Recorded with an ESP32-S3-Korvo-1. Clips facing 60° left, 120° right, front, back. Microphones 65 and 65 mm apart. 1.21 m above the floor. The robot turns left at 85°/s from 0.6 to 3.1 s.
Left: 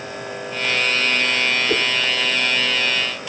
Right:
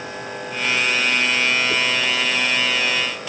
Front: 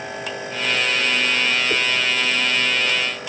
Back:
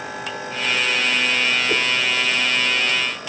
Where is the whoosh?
100° left; by 1.9 s 85° left.